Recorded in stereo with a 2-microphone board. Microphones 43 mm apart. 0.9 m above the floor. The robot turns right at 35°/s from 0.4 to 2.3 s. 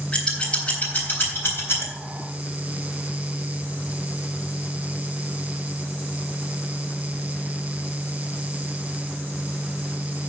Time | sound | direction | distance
0.1 | scissors | 20° left (ahead or behind) | 3.5 m